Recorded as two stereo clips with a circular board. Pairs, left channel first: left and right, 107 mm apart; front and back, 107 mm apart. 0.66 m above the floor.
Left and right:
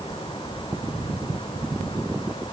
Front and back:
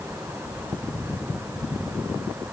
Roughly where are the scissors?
I don't hear scissors.